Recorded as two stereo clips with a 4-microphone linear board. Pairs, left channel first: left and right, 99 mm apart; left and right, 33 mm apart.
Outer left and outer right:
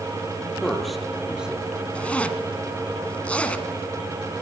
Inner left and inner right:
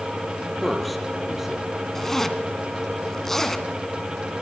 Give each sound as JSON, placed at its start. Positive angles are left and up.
{"t": 0.6, "sound": "a man speaking", "side_deg": 5, "distance_m": 4.5}
{"t": 1.9, "sound": "a zipper", "side_deg": 10, "distance_m": 1.8}